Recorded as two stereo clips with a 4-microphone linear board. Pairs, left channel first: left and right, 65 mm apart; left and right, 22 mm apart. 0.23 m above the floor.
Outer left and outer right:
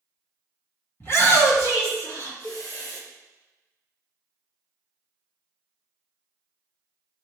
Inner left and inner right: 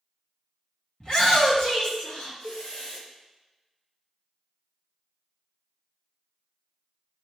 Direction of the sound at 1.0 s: 40° left (ahead or behind).